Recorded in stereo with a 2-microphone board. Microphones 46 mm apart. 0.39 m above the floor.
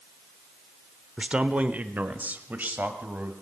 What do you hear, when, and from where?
1.2 s a man speaking: 20° right (ahead or behind), 0.8 m; by 3.3 s 40° right (ahead or behind), 2.0 m